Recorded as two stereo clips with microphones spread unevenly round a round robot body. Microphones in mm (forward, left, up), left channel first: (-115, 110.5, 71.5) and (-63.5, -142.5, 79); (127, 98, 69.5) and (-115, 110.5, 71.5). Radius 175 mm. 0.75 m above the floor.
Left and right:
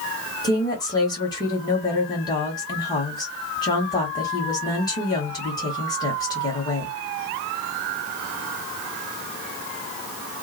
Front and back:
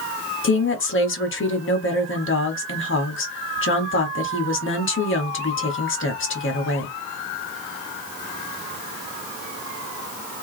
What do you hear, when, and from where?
0.4 s a woman speaking: 25° left, 1.2 m